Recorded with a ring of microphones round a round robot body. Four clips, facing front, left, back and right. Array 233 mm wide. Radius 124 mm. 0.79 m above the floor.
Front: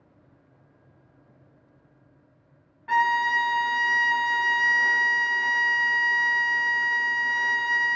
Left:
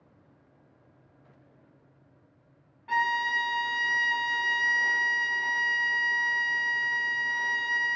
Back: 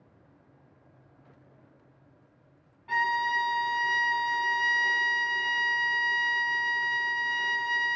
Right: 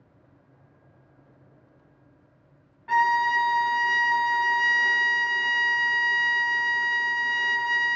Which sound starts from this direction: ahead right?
A violin, at 2.9 s.